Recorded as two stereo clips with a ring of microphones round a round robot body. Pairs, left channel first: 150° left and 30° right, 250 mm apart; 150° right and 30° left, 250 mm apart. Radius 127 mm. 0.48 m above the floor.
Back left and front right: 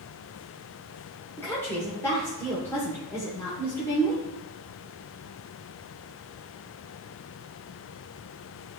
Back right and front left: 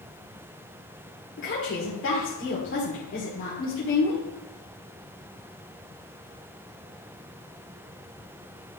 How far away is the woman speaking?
About 1.6 m.